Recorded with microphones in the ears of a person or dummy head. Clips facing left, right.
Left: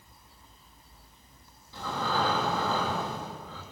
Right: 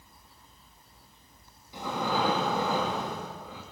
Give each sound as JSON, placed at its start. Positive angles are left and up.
{"t": 1.7, "sound": "breathing", "side_deg": -15, "distance_m": 2.5}